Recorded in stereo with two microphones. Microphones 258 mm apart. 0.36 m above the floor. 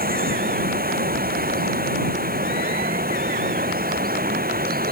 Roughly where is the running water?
Right.